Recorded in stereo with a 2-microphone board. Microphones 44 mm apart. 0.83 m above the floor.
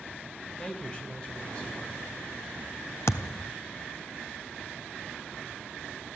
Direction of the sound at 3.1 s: 85° left.